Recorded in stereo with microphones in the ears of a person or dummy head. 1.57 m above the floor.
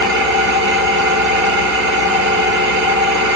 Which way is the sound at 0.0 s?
60° right (ahead or behind).